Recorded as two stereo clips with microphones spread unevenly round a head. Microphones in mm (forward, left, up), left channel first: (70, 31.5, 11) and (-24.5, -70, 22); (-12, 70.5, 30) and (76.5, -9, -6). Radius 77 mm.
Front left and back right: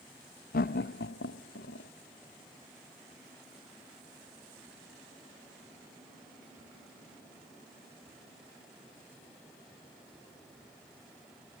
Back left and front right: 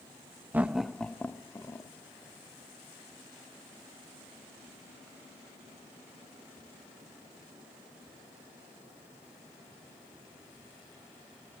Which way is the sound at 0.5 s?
45° left.